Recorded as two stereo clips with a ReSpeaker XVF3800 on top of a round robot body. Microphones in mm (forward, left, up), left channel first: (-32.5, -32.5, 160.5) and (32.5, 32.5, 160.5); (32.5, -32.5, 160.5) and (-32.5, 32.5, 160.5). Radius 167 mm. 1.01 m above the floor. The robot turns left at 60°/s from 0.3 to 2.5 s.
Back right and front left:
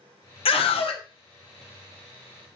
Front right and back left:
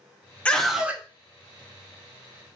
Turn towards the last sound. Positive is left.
turn(degrees=115)